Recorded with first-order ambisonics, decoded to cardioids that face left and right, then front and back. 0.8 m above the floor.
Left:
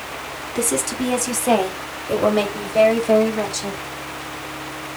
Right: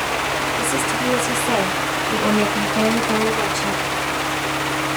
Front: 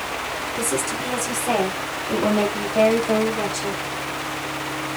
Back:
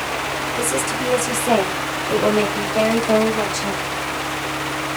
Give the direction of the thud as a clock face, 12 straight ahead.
No thud in this recording.